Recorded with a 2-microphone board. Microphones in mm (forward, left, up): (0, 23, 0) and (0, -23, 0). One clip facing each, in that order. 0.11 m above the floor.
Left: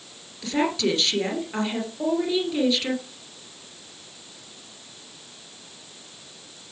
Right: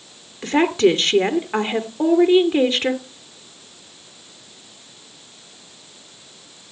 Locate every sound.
0.4 s a woman speaking: 35° right (ahead or behind), 2 m